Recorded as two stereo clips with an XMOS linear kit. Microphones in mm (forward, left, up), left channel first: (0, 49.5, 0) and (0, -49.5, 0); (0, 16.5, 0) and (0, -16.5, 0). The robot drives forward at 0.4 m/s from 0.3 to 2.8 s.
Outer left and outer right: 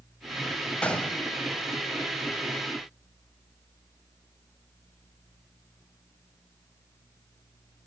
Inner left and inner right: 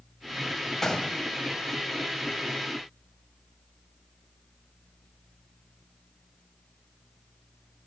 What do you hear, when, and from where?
0.8 s a gunshot: 10° left (ahead or behind), 0.9 m